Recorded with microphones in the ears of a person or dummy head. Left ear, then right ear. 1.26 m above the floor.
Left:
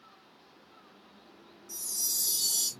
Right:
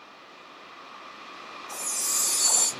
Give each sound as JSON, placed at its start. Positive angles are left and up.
{"t": 1.7, "sound": "a chime", "side_deg": 5, "distance_m": 0.8}